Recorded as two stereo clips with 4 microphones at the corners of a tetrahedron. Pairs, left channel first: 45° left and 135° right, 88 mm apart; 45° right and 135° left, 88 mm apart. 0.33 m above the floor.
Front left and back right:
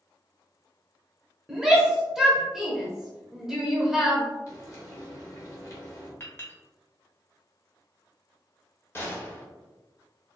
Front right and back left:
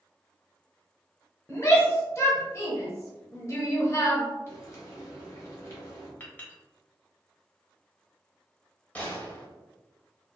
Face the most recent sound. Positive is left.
turn(degrees=10)